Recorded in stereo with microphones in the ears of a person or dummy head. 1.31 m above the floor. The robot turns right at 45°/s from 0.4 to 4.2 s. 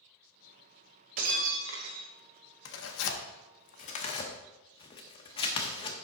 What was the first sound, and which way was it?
Breaking glass, 120° right.